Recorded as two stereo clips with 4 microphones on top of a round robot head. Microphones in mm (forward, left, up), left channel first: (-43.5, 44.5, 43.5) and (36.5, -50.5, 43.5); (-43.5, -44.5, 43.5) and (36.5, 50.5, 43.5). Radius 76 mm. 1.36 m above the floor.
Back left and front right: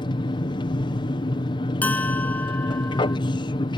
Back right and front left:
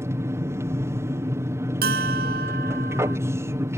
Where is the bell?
50° left.